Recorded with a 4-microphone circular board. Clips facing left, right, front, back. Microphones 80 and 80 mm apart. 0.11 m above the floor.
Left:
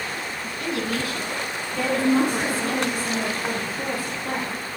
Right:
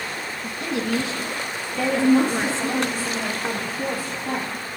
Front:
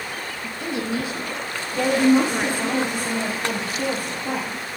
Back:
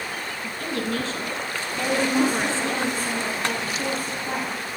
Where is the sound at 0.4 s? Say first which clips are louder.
Right 2 dB, front 1 dB; 60° right, 1.2 m.